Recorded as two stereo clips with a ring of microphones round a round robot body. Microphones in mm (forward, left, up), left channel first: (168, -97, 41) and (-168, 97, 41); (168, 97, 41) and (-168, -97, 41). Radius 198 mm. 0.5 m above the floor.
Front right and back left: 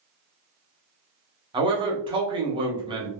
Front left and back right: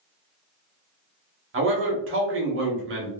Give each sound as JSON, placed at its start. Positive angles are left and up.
{"t": 1.5, "sound": "a man speaking", "azimuth_deg": -145, "distance_m": 0.8}